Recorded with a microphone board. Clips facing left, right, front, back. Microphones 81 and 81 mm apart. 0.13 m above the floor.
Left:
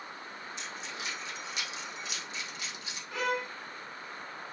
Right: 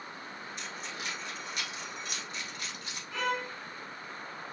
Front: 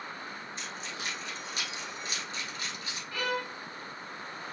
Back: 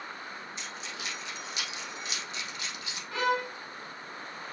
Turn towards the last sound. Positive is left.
turn(degrees=170)